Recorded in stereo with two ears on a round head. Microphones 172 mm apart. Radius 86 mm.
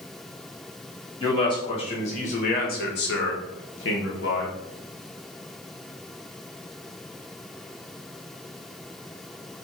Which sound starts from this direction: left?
A man speaking, at 1.2 s.